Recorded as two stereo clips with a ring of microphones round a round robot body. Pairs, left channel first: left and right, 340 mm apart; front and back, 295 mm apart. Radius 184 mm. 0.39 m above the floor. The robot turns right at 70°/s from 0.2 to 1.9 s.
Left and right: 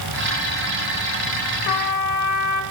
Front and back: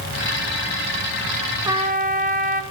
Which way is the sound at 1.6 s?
100° left.